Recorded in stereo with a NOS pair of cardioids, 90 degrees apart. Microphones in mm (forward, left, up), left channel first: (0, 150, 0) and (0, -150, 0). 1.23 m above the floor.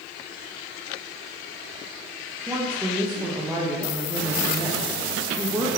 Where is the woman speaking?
5° right, 0.6 m.